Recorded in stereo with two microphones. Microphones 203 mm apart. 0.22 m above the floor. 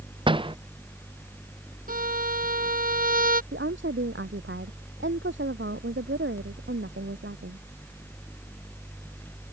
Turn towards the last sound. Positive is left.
turn(degrees=-70)  # may be behind; listen again after turning